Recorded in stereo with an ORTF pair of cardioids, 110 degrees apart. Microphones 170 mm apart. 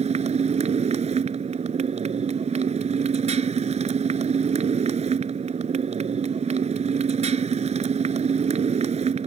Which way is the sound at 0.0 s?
40° right.